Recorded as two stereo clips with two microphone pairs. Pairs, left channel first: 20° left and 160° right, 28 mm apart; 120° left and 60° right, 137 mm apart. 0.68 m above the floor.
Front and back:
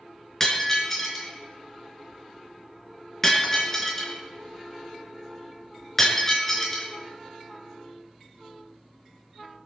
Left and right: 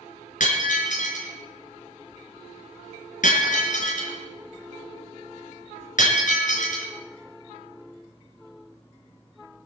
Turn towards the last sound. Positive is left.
turn(degrees=100)